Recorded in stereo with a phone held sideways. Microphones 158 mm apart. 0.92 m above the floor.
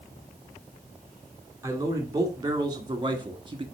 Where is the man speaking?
20° right (ahead or behind), 2.5 m; by 3.6 s 35° right (ahead or behind), 1.5 m.